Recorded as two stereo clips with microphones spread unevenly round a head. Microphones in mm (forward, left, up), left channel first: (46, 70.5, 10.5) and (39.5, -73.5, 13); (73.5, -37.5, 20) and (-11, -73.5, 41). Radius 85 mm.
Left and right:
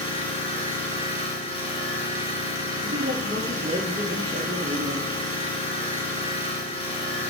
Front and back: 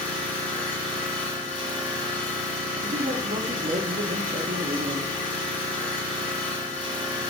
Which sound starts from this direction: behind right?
A man speaking, at 2.8 s.